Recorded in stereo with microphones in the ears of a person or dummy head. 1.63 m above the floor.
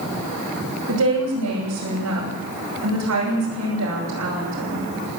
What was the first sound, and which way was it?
A woman speaking, 85° right.